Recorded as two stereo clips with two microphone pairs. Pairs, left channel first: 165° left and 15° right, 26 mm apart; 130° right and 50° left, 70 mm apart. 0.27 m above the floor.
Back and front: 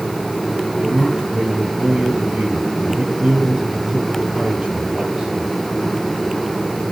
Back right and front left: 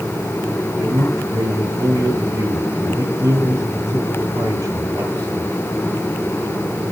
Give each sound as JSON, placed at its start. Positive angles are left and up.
{"t": 0.8, "sound": "a man speaking", "azimuth_deg": 25, "distance_m": 2.0}